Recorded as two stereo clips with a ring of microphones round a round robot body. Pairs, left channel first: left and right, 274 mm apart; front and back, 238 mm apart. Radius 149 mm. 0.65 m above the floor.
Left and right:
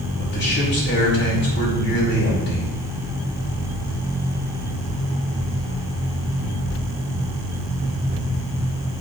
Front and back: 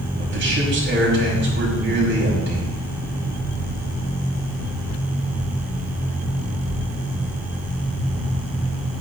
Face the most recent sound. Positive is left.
turn(degrees=140)